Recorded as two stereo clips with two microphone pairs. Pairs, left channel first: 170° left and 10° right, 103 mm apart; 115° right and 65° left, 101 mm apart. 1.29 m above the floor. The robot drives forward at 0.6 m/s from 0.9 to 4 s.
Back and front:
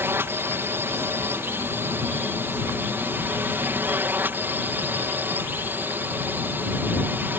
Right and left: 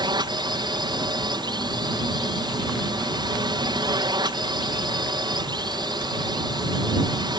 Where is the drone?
55° left.